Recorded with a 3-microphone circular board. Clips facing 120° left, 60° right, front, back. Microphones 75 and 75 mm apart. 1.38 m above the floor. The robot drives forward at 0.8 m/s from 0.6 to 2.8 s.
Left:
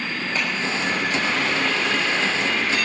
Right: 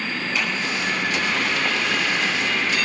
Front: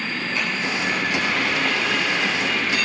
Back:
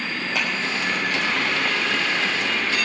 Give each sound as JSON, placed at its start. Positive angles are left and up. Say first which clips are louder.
{"t": 0.3, "sound": "a clap", "louder": "even, back 1 dB", "azimuth_deg": 175, "distance_m": 6.5}